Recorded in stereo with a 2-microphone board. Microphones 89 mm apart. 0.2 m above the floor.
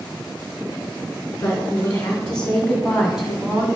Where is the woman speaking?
25° left (ahead or behind), 2.5 m; by 3.7 s 20° right (ahead or behind), 1.6 m.